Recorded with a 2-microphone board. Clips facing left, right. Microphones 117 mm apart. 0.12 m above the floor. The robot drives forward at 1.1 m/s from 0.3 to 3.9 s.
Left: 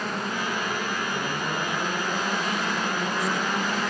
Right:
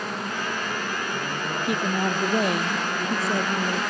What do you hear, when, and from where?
1.6 s a woman speaking: 65° right (ahead or behind); by 3.8 s 60° right (ahead or behind)